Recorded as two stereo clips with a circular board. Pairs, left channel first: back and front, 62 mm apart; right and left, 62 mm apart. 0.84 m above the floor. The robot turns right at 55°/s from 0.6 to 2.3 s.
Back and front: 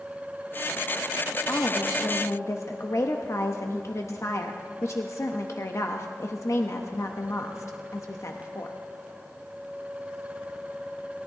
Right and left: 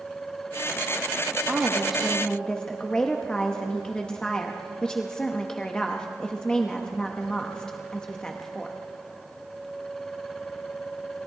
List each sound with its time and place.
1.5 s a woman speaking: 145° left, 0.9 m; by 8.8 s 165° right, 0.9 m